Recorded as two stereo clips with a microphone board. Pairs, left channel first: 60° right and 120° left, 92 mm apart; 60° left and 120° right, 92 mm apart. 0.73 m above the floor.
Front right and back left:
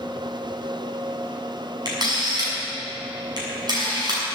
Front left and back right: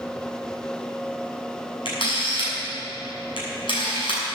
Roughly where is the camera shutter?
Left.